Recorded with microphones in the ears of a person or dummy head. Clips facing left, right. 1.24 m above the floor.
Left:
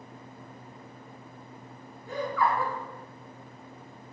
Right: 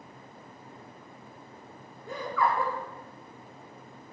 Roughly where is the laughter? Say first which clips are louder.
Left 1 dB; right.